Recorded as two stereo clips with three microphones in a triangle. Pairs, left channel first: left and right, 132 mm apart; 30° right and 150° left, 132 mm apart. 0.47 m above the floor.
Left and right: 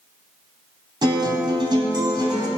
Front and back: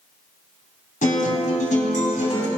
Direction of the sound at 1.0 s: 35° right.